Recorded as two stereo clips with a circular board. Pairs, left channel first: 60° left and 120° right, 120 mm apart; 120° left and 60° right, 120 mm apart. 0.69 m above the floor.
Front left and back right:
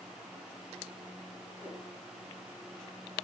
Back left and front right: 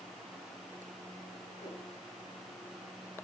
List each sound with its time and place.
1.6 s a whoosh: 135° left, 3 m